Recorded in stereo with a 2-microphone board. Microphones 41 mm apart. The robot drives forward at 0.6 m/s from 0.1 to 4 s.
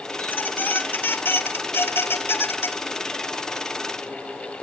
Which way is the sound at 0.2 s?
45° left (ahead or behind).